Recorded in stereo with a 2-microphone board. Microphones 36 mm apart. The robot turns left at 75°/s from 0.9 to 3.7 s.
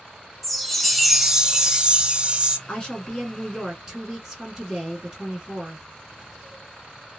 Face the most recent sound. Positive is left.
turn(degrees=-20)